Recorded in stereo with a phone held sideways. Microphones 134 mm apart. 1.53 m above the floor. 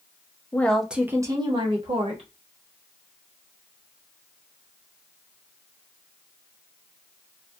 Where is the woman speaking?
15° left (ahead or behind), 0.6 m; by 2.3 s 55° right (ahead or behind), 1.0 m.